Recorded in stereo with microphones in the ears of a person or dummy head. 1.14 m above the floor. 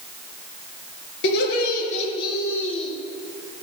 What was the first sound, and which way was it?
Laughter, 60° left (ahead or behind).